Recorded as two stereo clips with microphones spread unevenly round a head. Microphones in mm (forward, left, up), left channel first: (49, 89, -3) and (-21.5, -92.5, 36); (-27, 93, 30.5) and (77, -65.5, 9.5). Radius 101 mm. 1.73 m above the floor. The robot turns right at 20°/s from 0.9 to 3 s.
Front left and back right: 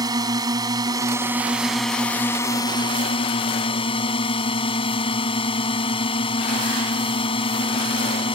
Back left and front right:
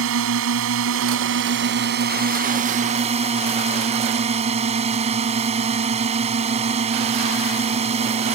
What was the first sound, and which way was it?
A drone, 40° right.